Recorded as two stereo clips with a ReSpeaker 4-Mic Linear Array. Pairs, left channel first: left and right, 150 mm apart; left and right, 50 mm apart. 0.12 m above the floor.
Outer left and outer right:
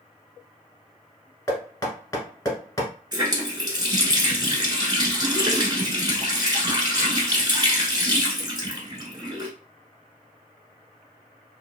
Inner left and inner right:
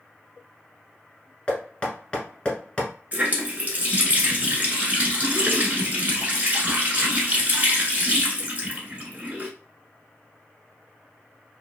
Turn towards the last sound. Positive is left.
turn(degrees=-30)  # may be behind; listen again after turning